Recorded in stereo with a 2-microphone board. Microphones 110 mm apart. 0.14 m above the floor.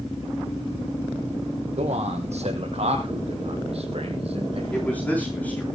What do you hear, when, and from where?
1.8 s a man speaking: 65° right (ahead or behind), 5 m; by 4.6 s 55° right (ahead or behind), 4 m
4.7 s a man speaking: 15° left (ahead or behind), 8.5 m